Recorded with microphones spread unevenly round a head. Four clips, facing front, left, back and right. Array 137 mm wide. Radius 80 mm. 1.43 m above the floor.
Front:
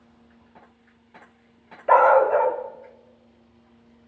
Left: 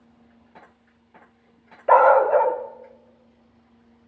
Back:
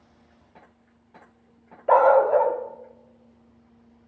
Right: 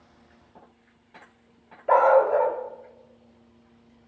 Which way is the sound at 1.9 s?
145° left.